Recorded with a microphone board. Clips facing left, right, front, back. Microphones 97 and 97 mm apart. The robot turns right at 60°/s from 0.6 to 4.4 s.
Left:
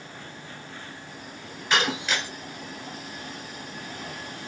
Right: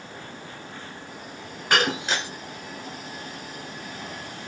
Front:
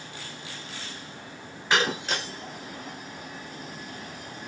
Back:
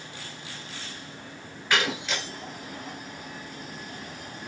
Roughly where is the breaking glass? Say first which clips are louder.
Right 2 dB, front 2 dB; ahead right.